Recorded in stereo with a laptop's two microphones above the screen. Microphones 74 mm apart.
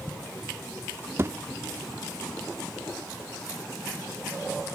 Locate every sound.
1.2 s a thud: 35° right (ahead or behind), 0.5 m